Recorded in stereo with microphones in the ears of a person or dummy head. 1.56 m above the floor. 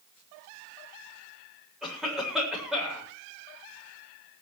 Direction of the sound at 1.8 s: 5° right (ahead or behind).